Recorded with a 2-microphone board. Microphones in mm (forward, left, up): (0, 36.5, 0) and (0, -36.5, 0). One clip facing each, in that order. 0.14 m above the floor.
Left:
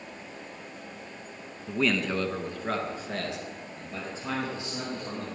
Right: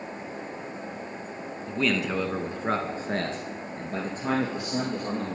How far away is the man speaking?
About 1.4 m.